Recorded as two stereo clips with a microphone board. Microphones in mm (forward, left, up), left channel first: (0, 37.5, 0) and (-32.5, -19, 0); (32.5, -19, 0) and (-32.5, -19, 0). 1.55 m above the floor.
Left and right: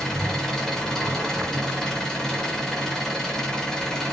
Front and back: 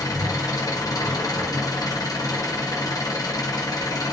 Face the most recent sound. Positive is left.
turn(degrees=-25)